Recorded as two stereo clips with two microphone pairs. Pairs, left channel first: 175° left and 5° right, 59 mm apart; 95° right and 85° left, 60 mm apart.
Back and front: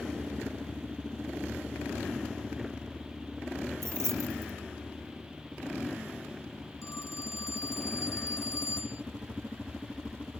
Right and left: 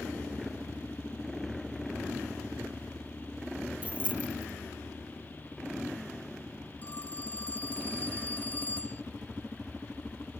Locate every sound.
3.8 s keys jangling: 20° left
6.8 s a phone ringing: 155° right